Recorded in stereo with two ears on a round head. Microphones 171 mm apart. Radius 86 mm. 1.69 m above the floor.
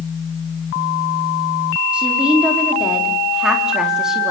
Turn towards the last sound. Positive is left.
turn(degrees=0)  # may be behind; listen again after turning